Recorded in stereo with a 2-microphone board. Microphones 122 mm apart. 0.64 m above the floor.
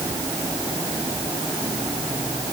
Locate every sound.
Only background noise.